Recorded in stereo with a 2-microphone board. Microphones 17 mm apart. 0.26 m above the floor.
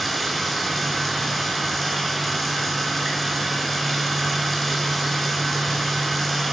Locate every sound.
0.0 s running water: 5° left (ahead or behind), 3.5 m